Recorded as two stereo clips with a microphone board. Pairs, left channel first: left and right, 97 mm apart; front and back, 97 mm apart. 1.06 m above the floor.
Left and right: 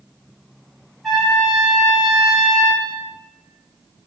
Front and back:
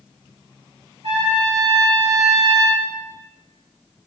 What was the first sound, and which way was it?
A trumpet, straight behind.